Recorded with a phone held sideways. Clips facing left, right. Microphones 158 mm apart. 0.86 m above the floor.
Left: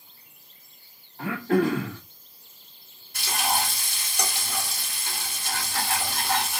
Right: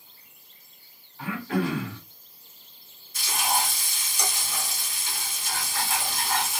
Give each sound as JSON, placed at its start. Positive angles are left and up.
{"t": 1.2, "sound": "throat clearing", "side_deg": 45, "distance_m": 1.8}
{"t": 3.1, "sound": "frying", "side_deg": 60, "distance_m": 2.5}